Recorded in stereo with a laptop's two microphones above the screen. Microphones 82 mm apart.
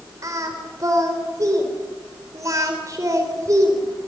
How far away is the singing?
About 4 m.